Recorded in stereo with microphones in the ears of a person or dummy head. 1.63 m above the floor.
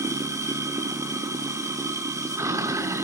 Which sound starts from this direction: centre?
Running water, at 0.0 s.